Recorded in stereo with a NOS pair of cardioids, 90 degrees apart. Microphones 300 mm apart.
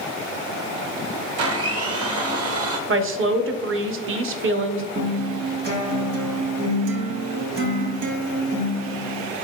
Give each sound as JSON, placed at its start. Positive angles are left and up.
{"t": 1.4, "sound": "a blender", "azimuth_deg": -55, "distance_m": 0.9}
{"t": 2.9, "sound": "a woman speaking", "azimuth_deg": -45, "distance_m": 0.7}
{"t": 5.0, "sound": "a guitar", "azimuth_deg": -55, "distance_m": 1.4}